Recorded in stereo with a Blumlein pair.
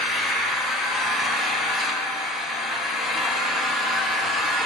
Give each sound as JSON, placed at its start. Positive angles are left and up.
{"t": 0.0, "sound": "an engine running", "azimuth_deg": 5, "distance_m": 0.9}